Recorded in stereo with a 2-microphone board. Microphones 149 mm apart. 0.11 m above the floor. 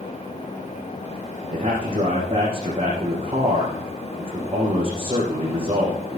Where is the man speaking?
40° right (ahead or behind), 5 m.